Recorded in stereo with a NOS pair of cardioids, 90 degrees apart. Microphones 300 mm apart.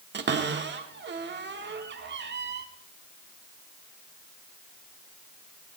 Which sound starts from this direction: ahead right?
A cupboard door, at 0.1 s.